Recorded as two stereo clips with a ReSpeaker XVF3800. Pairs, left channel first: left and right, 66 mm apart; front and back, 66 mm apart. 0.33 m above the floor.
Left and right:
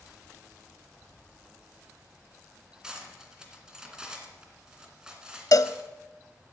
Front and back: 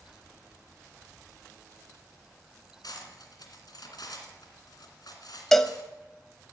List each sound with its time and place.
2.8 s cutlery clinking: 10° right, 2.5 m
5.5 s a cowbell: 85° left, 0.5 m